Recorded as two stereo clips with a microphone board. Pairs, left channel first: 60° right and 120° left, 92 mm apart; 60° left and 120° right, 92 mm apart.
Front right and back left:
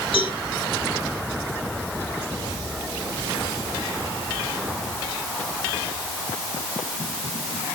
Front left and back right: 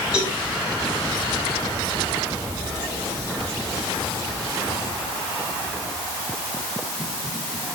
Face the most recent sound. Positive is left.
turn(degrees=-40)